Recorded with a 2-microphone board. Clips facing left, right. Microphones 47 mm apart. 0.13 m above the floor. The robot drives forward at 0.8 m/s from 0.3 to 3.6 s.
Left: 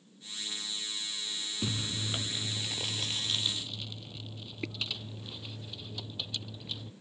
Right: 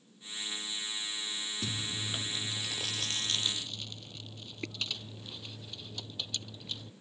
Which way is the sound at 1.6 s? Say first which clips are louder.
Left 4 dB; 20° left (ahead or behind).